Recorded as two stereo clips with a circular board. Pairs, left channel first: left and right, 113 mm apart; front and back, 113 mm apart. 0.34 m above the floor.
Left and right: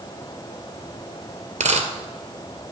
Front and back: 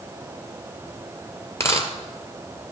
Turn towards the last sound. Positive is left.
turn(degrees=-65)